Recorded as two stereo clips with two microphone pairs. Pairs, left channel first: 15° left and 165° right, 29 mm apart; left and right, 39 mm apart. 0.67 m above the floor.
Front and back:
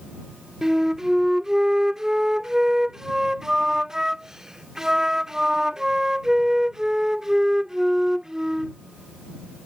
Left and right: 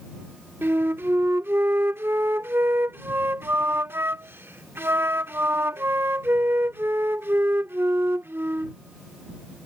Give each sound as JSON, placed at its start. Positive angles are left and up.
{"t": 0.6, "sound": "a flute", "azimuth_deg": -95}